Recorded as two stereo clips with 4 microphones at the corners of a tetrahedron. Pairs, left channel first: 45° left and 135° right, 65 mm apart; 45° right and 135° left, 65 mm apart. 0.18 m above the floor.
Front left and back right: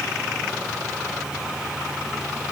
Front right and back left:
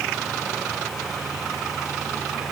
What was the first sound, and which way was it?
Only background noise.